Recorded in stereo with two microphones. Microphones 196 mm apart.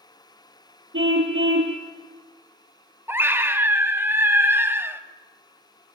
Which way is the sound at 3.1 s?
10° right (ahead or behind).